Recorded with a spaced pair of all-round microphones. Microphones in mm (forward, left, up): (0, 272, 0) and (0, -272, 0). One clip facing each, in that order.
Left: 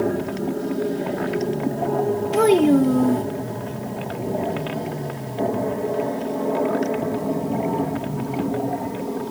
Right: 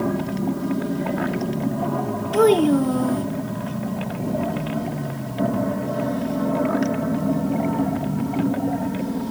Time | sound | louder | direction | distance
0.0 | an aircraft | even | 25° right (ahead or behind) | ?
2.3 | a child speaking | even | 50° left (ahead or behind) | ?